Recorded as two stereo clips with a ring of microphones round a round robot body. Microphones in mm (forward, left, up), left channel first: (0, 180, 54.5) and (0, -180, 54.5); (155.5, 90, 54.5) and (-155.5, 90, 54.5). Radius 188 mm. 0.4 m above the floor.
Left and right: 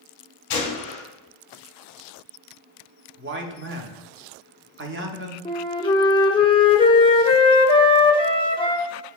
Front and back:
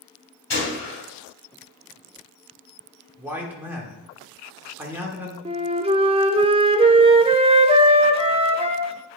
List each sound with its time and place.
0.5 s a gunshot: 45° left, 2 m
3.2 s a man speaking: 100° right, 0.8 m
5.5 s a flute: 145° left, 0.6 m